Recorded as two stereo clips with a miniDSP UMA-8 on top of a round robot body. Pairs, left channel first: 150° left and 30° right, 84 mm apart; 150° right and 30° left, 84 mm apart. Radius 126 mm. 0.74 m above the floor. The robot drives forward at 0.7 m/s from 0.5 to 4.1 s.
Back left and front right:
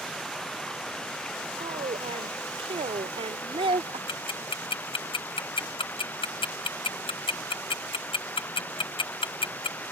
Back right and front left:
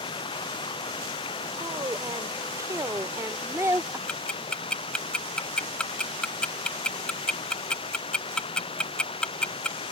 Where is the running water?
125° right; by 9.9 s 140° right.